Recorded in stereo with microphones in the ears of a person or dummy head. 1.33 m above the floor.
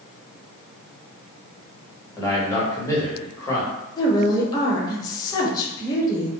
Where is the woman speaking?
25° left (ahead or behind), 0.8 m.